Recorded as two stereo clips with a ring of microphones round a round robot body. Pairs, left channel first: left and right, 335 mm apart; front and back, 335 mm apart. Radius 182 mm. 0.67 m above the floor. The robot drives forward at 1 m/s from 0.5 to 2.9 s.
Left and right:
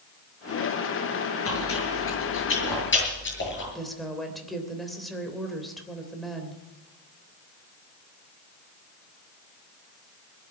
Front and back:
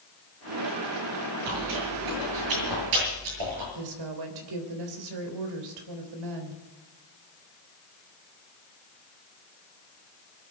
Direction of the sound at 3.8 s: Straight behind.